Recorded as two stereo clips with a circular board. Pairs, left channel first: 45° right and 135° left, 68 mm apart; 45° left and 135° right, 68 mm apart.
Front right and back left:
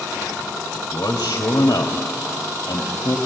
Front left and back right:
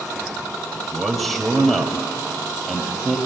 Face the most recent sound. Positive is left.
turn(degrees=-45)